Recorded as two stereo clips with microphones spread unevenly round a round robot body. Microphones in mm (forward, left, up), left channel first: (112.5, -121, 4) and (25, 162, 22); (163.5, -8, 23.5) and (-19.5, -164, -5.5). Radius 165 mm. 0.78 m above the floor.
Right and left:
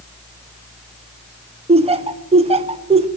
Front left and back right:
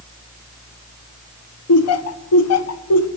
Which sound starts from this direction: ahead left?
Laughter, at 1.7 s.